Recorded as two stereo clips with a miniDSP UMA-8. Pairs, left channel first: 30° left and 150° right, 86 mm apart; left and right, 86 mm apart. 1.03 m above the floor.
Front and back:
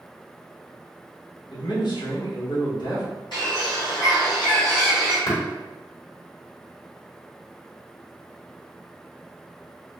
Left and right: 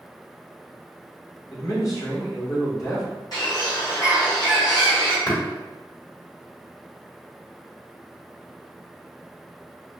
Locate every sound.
1.5 s a man speaking: 45° left, 1.1 m
3.3 s a bird: 55° left, 1.6 m
5.3 s tapping: 40° left, 1.5 m